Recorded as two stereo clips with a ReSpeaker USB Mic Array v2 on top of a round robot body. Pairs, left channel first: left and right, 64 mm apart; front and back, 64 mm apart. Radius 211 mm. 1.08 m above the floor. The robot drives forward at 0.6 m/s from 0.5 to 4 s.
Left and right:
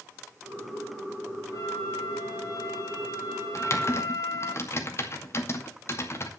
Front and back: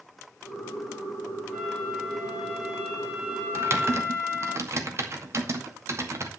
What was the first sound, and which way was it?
A flute, 95° left.